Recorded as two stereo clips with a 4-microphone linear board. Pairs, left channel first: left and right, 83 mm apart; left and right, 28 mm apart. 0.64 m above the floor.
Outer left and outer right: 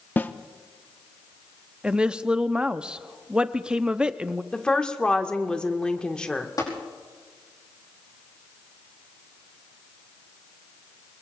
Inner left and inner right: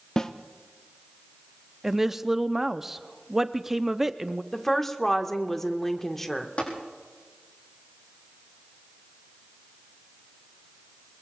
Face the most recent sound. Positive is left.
turn(degrees=45)  # may be behind; listen again after turning